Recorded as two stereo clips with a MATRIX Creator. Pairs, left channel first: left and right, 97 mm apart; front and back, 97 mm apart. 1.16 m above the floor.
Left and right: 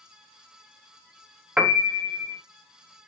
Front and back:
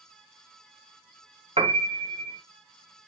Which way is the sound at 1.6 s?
170° right.